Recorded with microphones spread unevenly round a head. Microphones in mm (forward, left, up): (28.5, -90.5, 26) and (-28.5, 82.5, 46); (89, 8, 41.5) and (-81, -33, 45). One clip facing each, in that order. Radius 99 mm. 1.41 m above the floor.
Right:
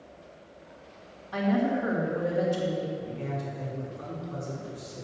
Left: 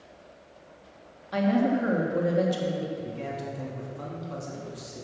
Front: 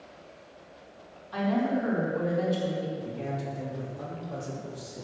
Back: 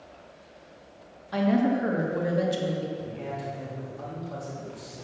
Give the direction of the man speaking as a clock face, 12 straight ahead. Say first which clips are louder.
Even, even; 9 o'clock.